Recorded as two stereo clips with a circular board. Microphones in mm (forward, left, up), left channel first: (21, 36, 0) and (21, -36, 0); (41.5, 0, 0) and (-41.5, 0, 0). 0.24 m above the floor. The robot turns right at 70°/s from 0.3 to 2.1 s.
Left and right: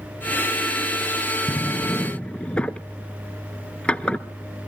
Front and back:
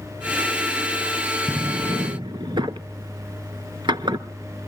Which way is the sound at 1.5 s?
120° left.